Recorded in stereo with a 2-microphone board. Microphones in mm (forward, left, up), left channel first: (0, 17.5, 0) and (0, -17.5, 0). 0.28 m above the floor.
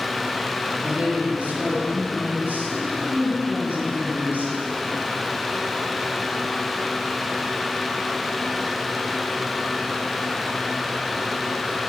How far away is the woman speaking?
About 2.5 m.